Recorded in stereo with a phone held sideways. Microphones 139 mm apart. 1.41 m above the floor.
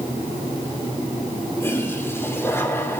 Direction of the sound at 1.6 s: 20° left (ahead or behind).